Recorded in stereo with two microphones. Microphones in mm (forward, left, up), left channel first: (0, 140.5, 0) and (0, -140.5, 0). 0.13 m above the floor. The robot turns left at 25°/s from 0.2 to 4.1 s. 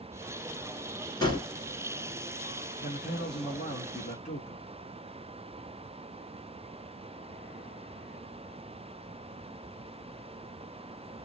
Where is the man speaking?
80° left, 1.2 m; by 4.7 s 50° left, 1.2 m.